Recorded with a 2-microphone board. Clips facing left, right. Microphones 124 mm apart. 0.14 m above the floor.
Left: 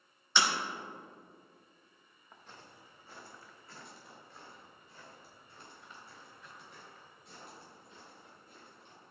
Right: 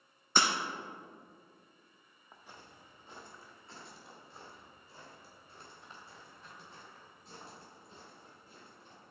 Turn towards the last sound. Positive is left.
turn(degrees=-40)  # may be behind; listen again after turning